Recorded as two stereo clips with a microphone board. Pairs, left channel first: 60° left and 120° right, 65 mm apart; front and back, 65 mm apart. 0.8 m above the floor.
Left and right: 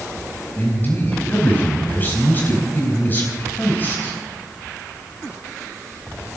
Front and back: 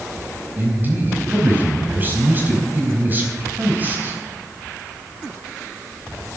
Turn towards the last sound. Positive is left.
turn(degrees=120)